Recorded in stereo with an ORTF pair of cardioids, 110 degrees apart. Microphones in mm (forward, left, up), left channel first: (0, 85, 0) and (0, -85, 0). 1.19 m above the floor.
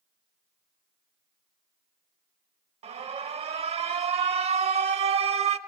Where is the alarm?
40° right, 0.8 m.